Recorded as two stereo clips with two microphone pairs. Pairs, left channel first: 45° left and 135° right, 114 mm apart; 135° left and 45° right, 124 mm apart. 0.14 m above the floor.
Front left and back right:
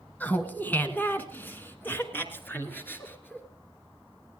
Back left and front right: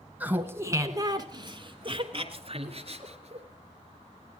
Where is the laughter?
Straight ahead, 1.3 m; by 3.5 s 25° right, 2.5 m.